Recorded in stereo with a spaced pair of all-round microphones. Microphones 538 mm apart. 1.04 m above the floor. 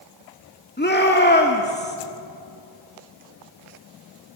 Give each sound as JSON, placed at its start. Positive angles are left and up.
{"t": 0.8, "sound": "a shout", "side_deg": 20, "distance_m": 2.0}